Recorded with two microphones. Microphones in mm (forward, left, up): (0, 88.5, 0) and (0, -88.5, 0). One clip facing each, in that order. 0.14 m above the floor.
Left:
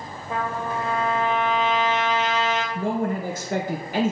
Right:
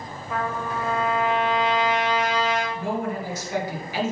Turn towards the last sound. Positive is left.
turn(degrees=55)  # may be behind; listen again after turning